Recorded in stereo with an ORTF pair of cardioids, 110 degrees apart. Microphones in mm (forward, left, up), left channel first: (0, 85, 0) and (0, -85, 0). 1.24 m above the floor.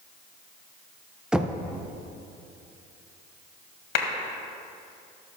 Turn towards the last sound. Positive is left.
turn(degrees=60)